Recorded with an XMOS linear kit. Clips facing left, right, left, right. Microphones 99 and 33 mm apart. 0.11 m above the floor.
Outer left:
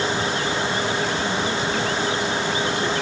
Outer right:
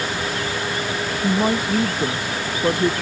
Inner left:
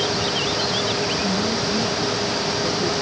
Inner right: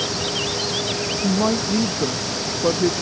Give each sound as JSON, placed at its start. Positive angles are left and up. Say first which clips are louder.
{"t": 1.2, "sound": "a woman speaking", "louder": "outer right 4 dB, inner right 2 dB", "side_deg": -45}